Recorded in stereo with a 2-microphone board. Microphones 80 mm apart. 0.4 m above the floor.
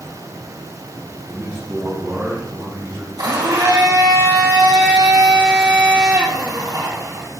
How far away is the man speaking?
About 3 m.